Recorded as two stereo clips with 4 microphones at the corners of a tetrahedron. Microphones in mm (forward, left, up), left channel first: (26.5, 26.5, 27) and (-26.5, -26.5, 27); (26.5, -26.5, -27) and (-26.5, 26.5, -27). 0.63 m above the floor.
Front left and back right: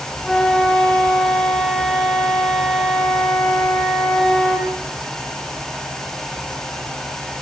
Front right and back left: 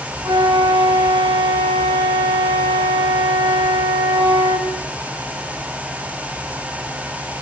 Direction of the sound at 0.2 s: 125° left.